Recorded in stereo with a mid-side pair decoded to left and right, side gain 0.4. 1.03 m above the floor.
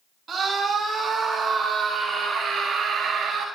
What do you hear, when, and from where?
0.3 s a scream: 50° right, 4.5 m; by 3.5 s 70° right, 3.5 m